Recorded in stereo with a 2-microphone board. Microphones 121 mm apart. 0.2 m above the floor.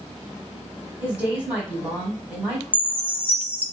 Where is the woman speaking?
10° right (ahead or behind), 1.3 m.